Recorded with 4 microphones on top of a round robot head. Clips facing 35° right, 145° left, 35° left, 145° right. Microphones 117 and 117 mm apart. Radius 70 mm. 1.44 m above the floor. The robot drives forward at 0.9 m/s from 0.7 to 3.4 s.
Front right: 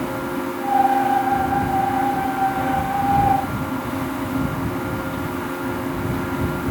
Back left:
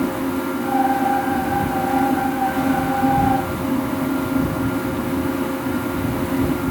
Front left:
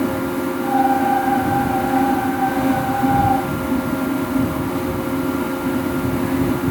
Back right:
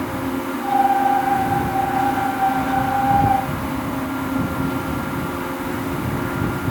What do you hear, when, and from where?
Only background noise.